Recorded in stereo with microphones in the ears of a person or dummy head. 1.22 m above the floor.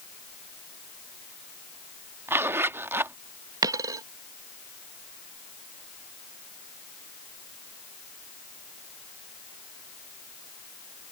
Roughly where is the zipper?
Centre.